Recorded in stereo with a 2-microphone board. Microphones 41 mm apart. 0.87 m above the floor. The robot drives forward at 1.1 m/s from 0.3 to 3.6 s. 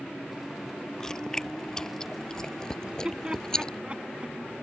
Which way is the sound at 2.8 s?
25° right (ahead or behind).